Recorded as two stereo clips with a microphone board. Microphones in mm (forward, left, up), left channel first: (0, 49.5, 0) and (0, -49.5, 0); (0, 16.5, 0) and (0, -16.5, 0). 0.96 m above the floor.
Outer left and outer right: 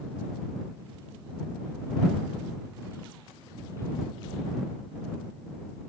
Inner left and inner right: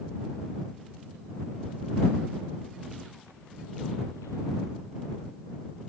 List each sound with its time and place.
Only background noise.